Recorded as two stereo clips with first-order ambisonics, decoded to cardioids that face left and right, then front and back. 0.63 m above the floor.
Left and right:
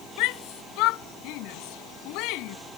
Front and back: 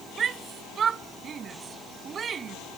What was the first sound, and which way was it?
A shout, 115° left.